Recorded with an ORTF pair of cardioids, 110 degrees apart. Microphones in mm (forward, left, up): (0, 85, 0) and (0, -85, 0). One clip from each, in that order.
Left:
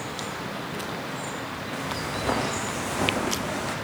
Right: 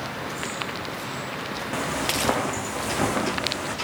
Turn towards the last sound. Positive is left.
turn(degrees=-20)